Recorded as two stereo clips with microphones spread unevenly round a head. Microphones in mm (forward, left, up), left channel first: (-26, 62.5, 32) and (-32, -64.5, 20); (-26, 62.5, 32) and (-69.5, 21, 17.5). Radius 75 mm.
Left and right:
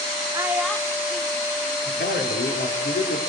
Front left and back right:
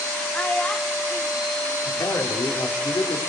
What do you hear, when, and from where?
0.3 s a child speaking: 25° right, 0.7 m; by 2.7 s 130° left, 2 m
1.9 s a man speaking: 70° left, 4.5 m